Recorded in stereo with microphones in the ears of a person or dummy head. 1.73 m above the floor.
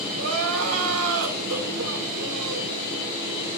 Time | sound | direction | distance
0.1 | crying | 80° right | 1.7 m